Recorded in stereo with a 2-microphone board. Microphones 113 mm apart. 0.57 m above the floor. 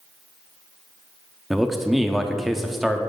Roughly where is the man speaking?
Centre.